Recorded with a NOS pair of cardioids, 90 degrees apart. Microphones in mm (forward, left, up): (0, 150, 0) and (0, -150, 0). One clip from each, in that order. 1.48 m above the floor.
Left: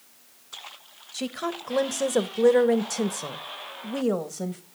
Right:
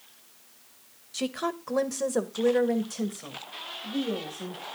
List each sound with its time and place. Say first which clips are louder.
1.1 s a woman speaking: even; 10° right, 1.3 m; by 4.6 s 75° left, 1.9 m